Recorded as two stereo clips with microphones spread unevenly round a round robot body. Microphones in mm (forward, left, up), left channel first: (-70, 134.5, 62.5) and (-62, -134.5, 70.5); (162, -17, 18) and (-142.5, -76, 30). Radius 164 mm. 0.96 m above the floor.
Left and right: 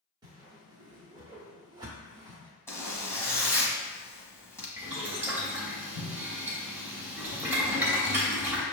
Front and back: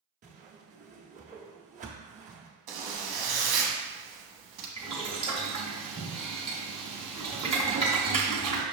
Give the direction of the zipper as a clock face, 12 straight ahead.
6 o'clock.